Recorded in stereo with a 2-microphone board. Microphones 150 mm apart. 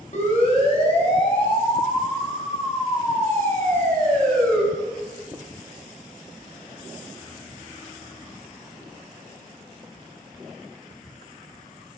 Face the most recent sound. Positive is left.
turn(degrees=10)  # may be behind; listen again after turning